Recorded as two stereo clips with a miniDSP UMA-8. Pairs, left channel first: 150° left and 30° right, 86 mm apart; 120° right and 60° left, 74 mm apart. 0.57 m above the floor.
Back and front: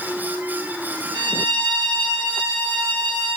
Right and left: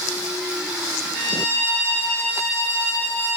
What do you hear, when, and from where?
1.1 s a violin: 50° right, 2.5 m